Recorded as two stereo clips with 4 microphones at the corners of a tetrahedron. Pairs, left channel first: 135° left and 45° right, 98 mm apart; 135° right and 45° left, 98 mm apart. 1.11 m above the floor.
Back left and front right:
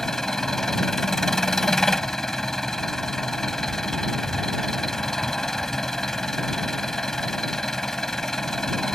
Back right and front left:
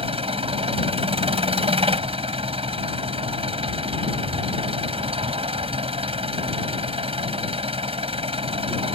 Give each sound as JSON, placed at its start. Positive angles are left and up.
{"t": 0.0, "sound": "an engine running", "azimuth_deg": 50}